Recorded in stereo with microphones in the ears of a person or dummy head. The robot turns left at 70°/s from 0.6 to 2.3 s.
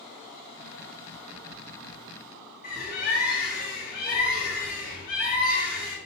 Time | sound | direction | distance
2.6 | a bird | 45° left (ahead or behind) | 3 m